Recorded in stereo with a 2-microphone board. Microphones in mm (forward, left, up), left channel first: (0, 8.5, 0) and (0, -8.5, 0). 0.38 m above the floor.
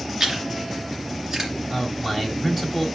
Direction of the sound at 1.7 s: 15° right (ahead or behind).